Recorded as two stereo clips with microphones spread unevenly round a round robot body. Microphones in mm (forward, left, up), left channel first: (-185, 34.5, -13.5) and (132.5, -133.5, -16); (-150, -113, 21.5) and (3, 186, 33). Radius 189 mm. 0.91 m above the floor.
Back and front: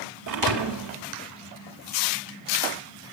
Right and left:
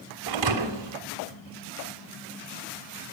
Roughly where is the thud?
Ahead.